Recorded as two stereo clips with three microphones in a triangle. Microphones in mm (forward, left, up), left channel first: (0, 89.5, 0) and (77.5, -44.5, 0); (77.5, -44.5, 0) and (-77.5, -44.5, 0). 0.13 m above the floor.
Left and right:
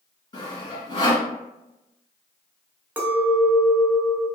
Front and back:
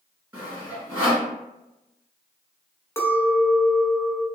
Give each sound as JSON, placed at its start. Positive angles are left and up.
{"t": 0.3, "sound": "sawing", "azimuth_deg": 115, "distance_m": 1.8}
{"t": 3.0, "sound": "a clink", "azimuth_deg": -15, "distance_m": 0.6}